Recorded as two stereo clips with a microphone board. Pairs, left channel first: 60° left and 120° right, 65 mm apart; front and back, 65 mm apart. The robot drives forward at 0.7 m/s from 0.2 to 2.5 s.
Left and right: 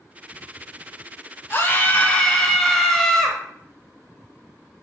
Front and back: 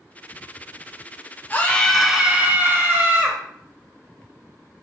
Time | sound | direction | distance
1.5 | a scream | 40° left | 0.8 m